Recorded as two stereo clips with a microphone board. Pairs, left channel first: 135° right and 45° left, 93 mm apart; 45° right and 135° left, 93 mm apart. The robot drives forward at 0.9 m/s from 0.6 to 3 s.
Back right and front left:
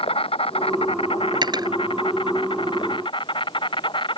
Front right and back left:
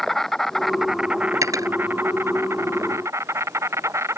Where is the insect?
130° right; by 4.2 s 165° right.